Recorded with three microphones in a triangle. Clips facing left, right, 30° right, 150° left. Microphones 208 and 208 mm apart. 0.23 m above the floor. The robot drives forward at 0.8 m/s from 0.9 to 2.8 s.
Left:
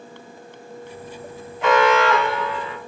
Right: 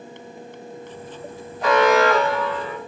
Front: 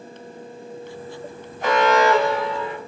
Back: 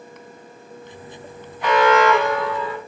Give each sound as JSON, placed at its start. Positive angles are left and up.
{"t": 1.6, "sound": "an alarm", "azimuth_deg": -55, "distance_m": 2.5}